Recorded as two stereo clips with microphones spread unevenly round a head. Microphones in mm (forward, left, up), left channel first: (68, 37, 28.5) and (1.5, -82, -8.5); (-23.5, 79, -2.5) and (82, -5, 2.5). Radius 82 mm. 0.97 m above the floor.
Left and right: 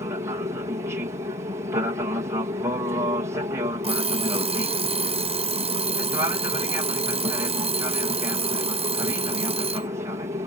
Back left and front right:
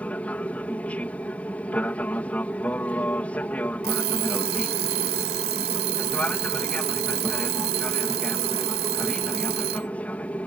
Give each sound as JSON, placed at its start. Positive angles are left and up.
{"t": 0.0, "sound": "an aircraft", "azimuth_deg": -145}
{"t": 3.8, "sound": "an alarm clock", "azimuth_deg": -70}